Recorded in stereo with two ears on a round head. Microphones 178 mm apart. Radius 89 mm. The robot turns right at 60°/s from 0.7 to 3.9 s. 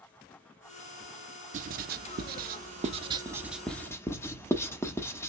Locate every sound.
1.5 s writing: 40° right (ahead or behind), 0.6 m; by 5.3 s 10° left (ahead or behind), 0.6 m